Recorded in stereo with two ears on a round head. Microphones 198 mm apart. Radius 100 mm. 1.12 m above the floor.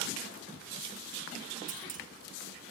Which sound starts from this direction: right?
A clunk, at 1.7 s.